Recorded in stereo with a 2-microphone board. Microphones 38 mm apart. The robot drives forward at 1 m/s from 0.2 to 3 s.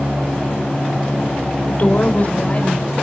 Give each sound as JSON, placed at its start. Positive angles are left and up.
{"t": 1.7, "sound": "a woman speaking", "side_deg": 40, "distance_m": 2.0}